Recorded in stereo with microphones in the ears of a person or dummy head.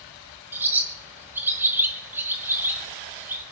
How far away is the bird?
About 1.5 m.